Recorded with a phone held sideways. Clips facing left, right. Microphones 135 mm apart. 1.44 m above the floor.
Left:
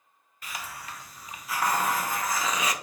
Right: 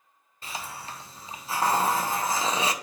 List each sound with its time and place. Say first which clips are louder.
0.4 s a hiss: right 2 dB; 30° right (ahead or behind), 0.6 m